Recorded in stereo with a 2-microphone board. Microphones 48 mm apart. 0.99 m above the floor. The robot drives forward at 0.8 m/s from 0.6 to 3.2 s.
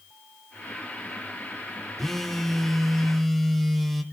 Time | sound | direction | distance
2.0 | a phone buzzing | 5° left (ahead or behind) | 1.1 m